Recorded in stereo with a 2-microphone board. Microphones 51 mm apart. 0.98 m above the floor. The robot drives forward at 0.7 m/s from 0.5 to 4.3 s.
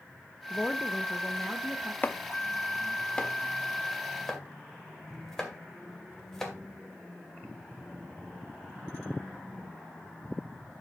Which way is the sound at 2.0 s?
35° left (ahead or behind).